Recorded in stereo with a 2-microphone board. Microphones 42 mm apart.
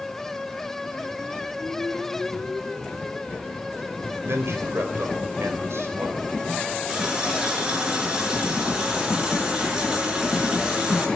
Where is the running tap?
20° right (ahead or behind), 5 m.